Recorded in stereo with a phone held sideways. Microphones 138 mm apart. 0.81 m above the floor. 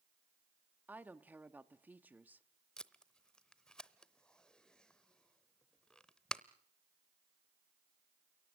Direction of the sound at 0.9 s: 10° right (ahead or behind).